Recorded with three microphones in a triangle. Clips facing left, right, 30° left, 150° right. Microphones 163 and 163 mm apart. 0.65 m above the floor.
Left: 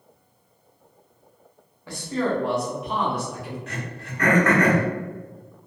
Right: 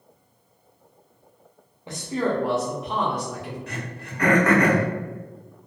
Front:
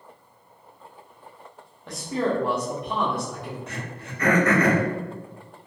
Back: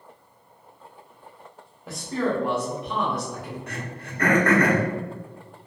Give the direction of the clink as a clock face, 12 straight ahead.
I don't hear a clink.